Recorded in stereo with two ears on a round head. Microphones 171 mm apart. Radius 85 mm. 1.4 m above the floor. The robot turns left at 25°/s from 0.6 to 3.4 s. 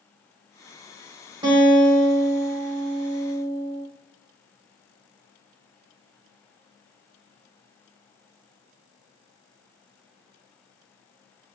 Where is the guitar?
155° right, 2 m; by 3.9 s 155° left, 2 m.